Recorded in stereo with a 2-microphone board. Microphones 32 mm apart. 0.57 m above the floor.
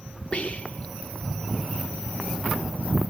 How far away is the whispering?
About 1.2 m.